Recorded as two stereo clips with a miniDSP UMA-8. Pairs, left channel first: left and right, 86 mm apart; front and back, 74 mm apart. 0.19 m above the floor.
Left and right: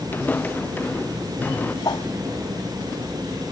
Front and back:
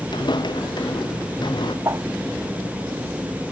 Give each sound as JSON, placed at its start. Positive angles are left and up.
{"t": 0.1, "sound": "footsteps", "azimuth_deg": 20}
{"t": 1.9, "sound": "a whoosh", "azimuth_deg": 125}